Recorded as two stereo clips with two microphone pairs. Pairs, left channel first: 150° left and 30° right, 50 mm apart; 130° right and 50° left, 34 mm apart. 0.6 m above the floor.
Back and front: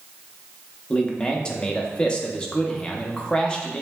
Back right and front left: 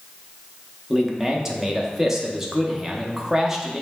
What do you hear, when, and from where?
0.9 s a man speaking: 110° left, 0.6 m